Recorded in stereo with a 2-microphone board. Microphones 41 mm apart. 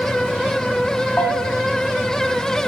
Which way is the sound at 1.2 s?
30° left (ahead or behind).